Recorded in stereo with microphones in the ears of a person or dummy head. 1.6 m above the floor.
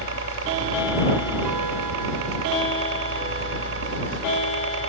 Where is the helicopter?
65° right (ahead or behind).